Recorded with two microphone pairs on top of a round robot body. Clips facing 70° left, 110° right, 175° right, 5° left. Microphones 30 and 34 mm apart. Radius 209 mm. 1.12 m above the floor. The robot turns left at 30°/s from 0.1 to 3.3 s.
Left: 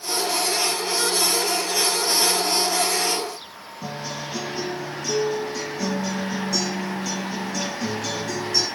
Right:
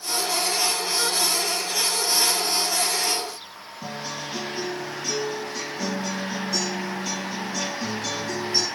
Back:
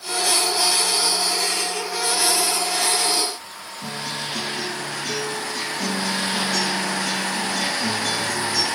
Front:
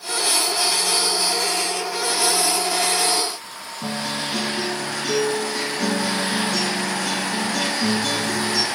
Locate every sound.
3.8 s a guitar: 30° right, 6 m